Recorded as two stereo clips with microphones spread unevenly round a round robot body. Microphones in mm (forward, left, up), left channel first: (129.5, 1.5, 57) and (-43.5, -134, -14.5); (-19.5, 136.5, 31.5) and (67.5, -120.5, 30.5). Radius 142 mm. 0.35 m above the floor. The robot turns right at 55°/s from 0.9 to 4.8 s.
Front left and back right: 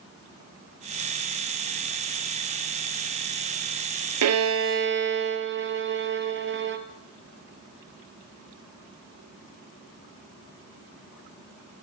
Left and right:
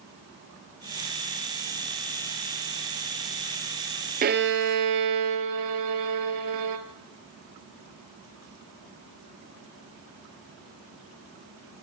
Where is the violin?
135° right, 1.5 m; by 6.8 s 100° right, 1.5 m.